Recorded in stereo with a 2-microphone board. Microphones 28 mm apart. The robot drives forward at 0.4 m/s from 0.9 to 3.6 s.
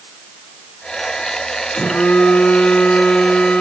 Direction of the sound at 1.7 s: 85° left.